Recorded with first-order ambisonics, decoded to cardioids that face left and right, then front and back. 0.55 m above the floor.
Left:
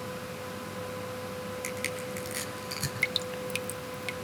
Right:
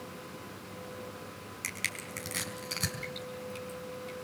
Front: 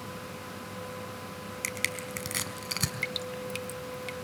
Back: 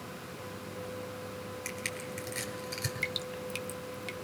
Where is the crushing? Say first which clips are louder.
Right 1 dB, front 7 dB; 5° right, 4.5 m.